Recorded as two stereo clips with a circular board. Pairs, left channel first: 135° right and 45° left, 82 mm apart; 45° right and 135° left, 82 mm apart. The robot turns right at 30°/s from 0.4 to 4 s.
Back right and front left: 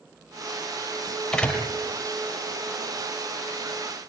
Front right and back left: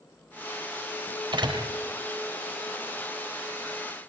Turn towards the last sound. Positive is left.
turn(degrees=-135)